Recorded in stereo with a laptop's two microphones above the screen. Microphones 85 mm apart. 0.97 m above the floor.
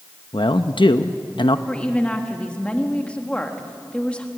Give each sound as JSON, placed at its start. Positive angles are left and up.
{"t": 0.3, "sound": "a man speaking", "side_deg": 70, "distance_m": 0.8}
{"t": 1.7, "sound": "a woman speaking", "side_deg": 15, "distance_m": 1.5}